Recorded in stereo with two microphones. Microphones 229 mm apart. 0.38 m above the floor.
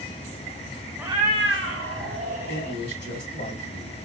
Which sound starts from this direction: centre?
A cat meowing, at 1.0 s.